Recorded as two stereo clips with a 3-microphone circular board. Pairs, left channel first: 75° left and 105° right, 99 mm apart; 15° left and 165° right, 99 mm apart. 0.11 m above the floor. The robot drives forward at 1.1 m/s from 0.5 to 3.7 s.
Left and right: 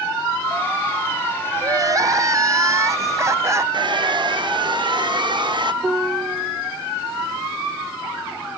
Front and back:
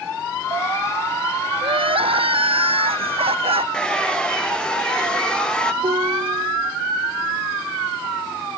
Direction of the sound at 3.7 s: 65° right.